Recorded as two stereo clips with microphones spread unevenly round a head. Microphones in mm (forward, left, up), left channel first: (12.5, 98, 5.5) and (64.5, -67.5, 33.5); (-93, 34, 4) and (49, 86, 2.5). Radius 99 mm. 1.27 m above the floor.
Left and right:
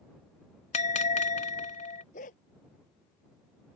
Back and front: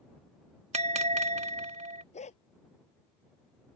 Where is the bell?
55° left.